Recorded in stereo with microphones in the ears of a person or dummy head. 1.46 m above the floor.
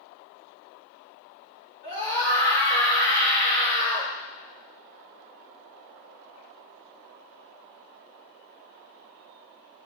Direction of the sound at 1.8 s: 35° left (ahead or behind).